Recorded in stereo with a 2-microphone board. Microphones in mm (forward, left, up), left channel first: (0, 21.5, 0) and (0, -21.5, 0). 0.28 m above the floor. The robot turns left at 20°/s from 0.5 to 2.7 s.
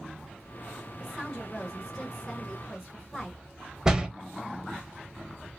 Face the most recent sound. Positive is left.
turn(degrees=-15)  # may be behind; listen again after turning